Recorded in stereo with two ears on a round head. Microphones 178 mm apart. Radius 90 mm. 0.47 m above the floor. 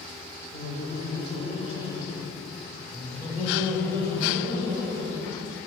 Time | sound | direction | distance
0.5 | laughter | 25° left (ahead or behind) | 1.2 m